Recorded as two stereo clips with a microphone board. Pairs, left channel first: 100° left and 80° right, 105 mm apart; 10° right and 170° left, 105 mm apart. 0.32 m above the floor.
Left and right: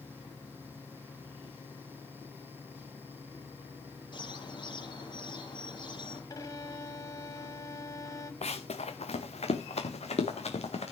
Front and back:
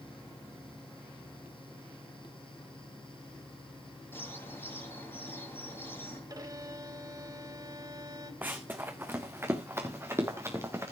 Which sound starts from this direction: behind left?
A violin, at 6.3 s.